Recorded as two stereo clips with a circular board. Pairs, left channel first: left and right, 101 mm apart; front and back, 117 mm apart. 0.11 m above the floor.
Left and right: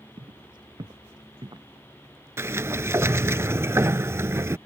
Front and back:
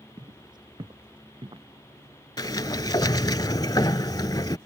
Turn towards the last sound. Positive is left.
turn(degrees=-40)